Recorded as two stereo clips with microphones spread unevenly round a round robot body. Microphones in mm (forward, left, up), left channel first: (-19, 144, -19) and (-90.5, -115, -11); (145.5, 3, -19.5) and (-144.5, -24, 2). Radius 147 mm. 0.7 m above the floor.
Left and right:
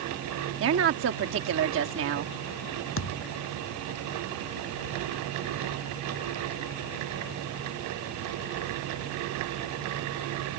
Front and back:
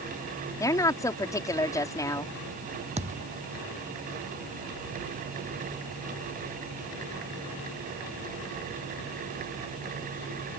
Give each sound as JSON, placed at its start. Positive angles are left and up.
{"t": 0.6, "sound": "a woman speaking", "azimuth_deg": -70}
{"t": 3.0, "sound": "a thud", "azimuth_deg": 115}